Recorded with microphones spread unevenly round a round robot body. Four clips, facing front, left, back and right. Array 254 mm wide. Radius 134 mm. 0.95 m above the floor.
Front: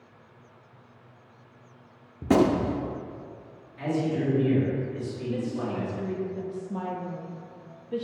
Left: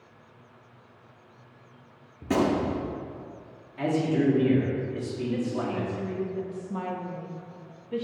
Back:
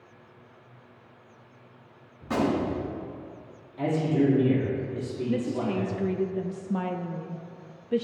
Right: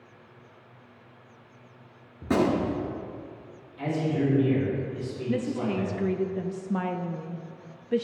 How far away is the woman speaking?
About 0.5 m.